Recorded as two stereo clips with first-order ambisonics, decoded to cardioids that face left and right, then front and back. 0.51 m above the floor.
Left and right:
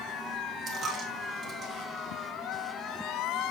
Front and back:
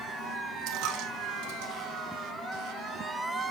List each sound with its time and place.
0.7 s a dropped coin: 155° right, 3 m